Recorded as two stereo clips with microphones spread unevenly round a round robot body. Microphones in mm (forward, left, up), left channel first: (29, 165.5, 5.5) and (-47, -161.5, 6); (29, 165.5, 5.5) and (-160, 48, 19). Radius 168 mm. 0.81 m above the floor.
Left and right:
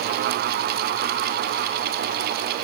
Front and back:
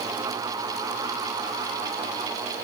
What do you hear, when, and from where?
Only background noise.